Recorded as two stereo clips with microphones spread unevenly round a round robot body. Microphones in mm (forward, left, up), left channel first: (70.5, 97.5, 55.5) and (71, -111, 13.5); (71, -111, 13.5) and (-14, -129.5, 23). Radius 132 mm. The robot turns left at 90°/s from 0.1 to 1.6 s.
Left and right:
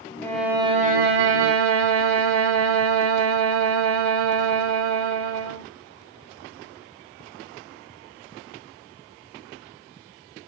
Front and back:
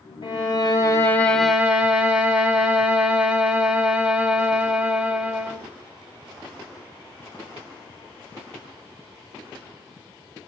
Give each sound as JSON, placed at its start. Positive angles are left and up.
{"t": 0.2, "sound": "a violin", "azimuth_deg": 25, "distance_m": 0.6}